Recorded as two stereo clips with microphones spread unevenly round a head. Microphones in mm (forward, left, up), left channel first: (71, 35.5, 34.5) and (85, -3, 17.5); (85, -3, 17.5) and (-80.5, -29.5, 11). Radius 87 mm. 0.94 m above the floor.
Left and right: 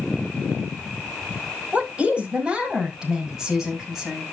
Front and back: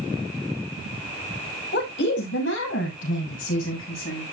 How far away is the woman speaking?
About 6 m.